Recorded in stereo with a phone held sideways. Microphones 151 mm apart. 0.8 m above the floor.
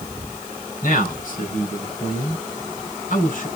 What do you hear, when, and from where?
0.8 s a man speaking: 65° left (ahead or behind), 5 m